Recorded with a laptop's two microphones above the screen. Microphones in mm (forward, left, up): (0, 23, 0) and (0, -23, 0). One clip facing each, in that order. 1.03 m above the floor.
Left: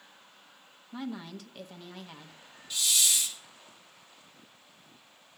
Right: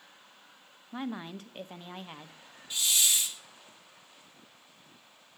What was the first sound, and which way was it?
A woman speaking, 30° right (ahead or behind).